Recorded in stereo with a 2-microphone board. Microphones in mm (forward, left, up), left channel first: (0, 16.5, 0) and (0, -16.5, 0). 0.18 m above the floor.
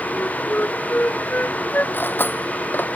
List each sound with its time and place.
0.1 s a flute: 60° left (ahead or behind)
1.9 s cutlery clinking: 75° left (ahead or behind)